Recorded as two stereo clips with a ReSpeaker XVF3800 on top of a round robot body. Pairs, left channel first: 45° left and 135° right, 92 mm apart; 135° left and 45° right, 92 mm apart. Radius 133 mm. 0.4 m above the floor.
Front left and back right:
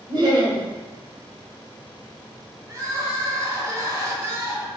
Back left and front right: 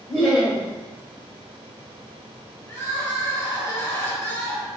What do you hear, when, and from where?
0.1 s laughter: 120° right, 1.8 m
2.7 s crying: straight behind, 1.2 m